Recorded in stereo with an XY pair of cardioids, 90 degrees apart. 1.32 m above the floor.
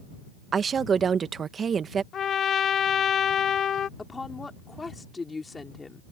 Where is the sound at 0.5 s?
50° right.